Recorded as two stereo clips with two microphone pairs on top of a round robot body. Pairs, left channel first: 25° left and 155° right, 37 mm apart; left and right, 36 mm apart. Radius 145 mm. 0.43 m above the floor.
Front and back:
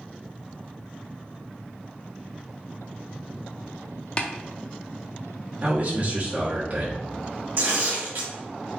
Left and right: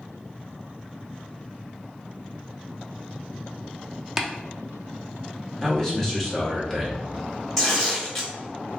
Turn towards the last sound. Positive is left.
turn(degrees=180)